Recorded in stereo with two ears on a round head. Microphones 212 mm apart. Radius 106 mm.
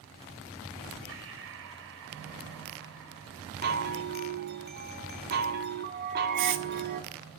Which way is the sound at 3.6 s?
45° right (ahead or behind).